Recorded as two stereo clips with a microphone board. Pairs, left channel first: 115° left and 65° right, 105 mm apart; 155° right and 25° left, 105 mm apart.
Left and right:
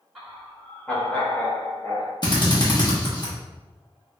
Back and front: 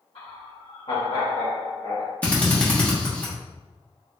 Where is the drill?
130° left, 1.2 m.